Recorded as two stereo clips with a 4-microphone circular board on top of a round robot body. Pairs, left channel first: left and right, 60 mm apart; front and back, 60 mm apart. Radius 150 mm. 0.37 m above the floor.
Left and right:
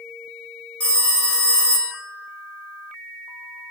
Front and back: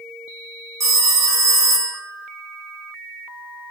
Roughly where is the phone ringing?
Behind left.